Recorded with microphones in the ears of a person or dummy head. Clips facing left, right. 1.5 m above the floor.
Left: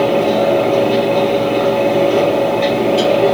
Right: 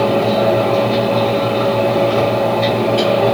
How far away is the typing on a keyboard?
I don't hear typing on a keyboard.